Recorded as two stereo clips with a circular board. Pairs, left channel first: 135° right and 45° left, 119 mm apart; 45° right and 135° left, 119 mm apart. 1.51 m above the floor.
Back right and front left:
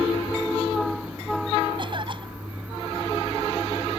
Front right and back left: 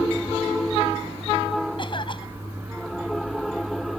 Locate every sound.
1.8 s a cough: straight ahead